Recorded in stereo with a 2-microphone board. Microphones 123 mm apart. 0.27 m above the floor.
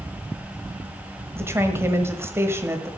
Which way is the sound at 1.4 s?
20° right (ahead or behind).